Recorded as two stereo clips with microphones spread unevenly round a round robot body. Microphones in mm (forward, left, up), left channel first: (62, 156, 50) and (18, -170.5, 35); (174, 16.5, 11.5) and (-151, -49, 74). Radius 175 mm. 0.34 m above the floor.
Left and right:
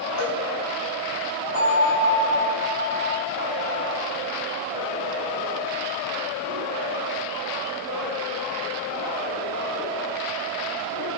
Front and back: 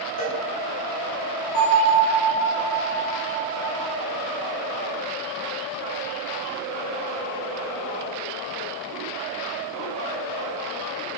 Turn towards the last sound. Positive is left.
turn(degrees=30)